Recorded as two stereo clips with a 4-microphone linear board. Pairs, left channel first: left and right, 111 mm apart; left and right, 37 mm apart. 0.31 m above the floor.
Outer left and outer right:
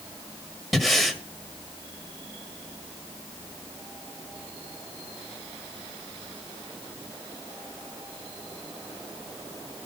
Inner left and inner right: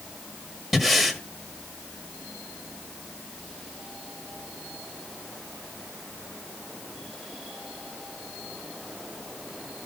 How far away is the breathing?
About 1.5 m.